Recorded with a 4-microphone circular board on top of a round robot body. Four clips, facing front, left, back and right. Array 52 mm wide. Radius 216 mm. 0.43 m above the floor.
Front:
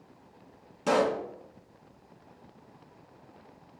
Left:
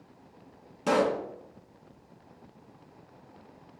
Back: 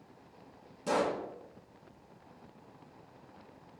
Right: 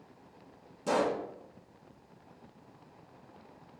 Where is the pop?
55° left, 1.8 m.